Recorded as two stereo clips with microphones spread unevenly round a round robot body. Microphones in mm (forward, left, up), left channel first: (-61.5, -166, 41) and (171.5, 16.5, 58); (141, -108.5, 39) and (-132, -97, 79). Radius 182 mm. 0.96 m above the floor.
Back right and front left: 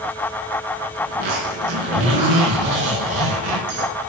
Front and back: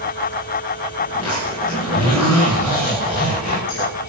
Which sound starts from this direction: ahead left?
A zipper, at 1.1 s.